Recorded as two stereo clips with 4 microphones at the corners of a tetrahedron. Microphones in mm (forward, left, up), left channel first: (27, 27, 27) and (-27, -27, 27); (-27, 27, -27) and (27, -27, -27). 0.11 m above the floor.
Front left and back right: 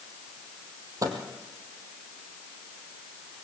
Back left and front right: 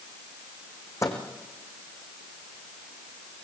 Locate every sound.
1.0 s a microwave: straight behind, 3 m